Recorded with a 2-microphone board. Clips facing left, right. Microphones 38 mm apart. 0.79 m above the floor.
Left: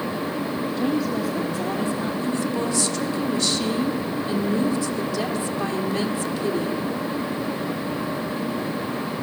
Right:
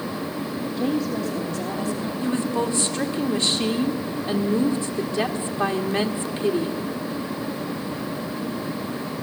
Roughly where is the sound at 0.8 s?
Centre.